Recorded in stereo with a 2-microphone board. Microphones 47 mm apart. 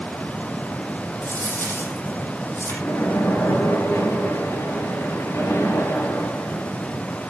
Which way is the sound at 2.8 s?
80° left.